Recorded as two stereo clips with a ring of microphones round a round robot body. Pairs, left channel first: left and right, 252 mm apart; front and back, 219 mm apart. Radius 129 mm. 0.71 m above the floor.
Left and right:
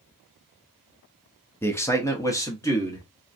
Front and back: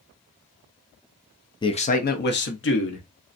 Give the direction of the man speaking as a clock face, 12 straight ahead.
11 o'clock.